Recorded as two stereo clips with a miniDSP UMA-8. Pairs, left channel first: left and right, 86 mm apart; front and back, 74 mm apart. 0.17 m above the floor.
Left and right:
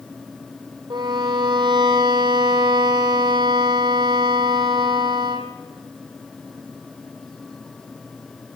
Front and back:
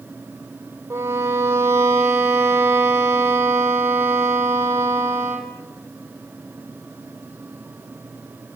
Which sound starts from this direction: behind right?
A violin, at 0.9 s.